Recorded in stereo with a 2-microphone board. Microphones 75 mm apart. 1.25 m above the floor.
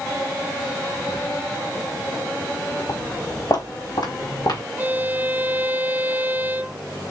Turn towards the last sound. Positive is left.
turn(degrees=-25)  # may be behind; listen again after turning